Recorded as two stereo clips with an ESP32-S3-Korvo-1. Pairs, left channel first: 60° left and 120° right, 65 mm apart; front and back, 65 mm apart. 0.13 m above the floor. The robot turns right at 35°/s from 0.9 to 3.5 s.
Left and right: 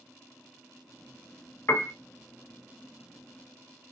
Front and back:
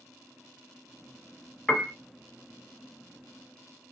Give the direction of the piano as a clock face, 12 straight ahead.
10 o'clock.